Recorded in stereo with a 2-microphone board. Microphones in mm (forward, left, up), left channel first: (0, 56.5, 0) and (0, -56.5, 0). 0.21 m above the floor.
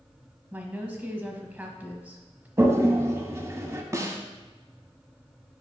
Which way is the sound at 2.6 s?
25° right (ahead or behind).